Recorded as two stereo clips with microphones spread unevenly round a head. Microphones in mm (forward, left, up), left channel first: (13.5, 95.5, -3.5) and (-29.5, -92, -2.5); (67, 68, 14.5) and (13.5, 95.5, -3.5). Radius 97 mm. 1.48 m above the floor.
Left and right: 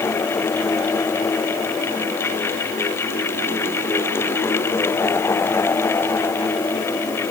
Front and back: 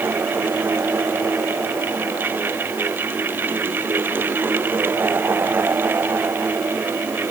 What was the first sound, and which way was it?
Only background noise.